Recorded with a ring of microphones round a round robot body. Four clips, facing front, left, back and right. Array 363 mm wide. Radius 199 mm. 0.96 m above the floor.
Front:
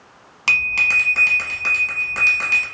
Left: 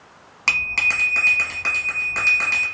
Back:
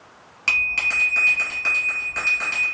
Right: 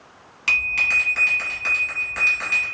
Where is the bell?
45° left, 1.3 m.